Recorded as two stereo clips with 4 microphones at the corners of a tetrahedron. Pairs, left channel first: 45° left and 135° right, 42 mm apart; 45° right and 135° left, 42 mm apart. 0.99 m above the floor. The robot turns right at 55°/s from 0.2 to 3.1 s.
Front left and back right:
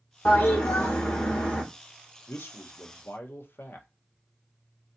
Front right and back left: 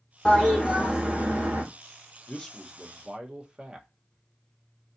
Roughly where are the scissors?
I don't hear scissors.